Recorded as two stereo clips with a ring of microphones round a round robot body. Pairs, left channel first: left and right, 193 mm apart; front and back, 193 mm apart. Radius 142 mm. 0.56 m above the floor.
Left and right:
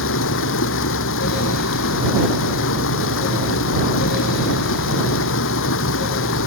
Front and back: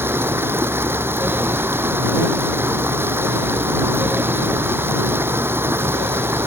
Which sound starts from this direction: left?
Running water, at 0.0 s.